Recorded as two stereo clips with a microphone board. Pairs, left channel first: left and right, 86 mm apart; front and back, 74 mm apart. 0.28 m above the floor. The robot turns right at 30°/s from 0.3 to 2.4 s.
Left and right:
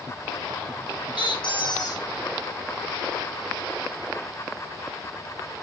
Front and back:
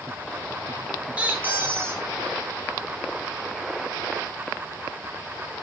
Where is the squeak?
105° left, 1.4 m; by 2.1 s 135° left, 1.4 m.